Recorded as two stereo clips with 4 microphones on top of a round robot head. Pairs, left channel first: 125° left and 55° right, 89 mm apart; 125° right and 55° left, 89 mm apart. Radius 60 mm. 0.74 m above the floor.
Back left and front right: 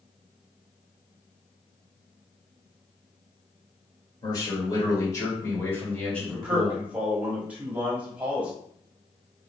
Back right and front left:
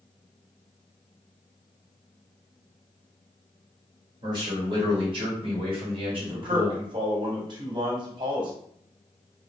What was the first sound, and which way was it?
A man speaking, 85° left.